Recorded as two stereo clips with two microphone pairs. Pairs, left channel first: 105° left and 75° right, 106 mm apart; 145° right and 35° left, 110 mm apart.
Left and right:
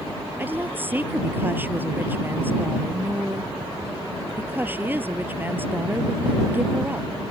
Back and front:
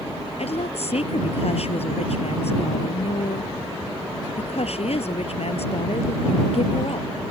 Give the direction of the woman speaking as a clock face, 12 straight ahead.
5 o'clock.